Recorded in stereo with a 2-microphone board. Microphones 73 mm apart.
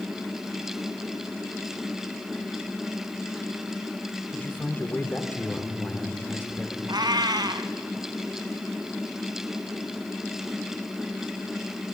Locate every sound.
4.3 s a man speaking: 25° left (ahead or behind), 2.5 m
6.9 s a cat meowing: 70° right (ahead or behind), 1.4 m